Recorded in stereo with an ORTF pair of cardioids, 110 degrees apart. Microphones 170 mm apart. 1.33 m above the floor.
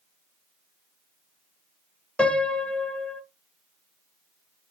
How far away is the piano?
About 0.5 m.